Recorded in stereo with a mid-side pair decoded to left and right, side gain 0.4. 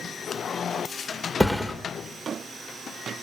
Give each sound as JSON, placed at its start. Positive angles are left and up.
{"t": 1.4, "sound": "a thud", "azimuth_deg": 0, "distance_m": 2.5}